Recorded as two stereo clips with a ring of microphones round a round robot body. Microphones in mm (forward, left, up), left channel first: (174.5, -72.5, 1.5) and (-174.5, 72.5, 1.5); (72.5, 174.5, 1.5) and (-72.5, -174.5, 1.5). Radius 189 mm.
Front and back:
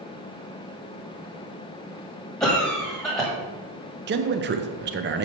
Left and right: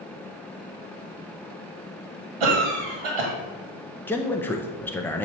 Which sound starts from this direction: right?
A cough, at 2.4 s.